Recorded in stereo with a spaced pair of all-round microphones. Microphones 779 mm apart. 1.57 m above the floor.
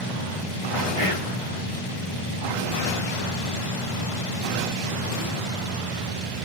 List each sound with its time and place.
1.0 s whispering: 60° right (ahead or behind), 1.3 m